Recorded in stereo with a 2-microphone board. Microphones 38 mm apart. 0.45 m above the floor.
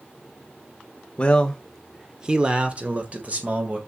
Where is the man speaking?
25° left (ahead or behind), 1.2 m; by 3.8 s 40° right (ahead or behind), 2.5 m.